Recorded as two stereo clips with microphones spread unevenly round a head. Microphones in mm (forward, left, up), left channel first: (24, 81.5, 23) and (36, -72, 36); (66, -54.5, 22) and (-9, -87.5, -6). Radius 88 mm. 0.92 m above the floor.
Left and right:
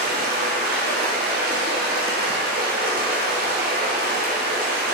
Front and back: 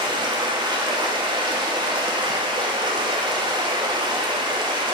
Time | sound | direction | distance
0.0 | running water | 130° right | 0.7 m